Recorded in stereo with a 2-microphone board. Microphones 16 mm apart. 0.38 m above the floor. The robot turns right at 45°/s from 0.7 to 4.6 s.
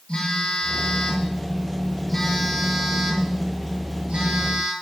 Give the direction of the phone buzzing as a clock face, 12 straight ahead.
8 o'clock.